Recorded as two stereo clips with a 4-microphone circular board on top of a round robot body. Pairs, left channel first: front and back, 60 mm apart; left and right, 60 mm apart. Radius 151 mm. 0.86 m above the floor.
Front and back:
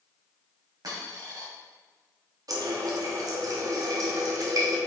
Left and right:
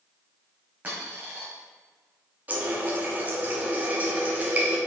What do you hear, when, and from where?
0.8 s a dropped coin: 155° right, 2 m
2.5 s a running tap: 155° right, 1.2 m